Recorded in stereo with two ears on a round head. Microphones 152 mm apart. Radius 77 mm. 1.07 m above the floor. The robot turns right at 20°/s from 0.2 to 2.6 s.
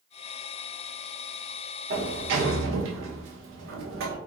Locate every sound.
1.9 s a sliding door: 70° right (ahead or behind), 0.6 m; by 4.2 s 85° right, 0.6 m